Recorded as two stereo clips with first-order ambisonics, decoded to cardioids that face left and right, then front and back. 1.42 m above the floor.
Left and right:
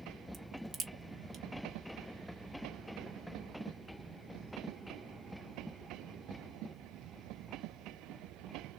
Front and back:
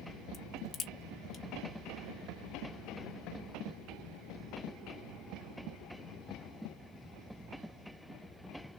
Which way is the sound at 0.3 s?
55° right.